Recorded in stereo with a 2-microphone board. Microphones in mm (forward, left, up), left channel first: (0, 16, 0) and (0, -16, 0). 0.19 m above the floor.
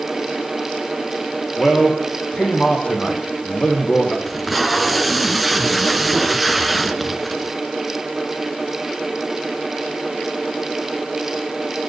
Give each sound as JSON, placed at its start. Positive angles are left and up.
{"t": 1.6, "sound": "a man speaking", "side_deg": 40, "distance_m": 10.0}
{"t": 4.3, "sound": "tape being pulled", "side_deg": 5, "distance_m": 2.0}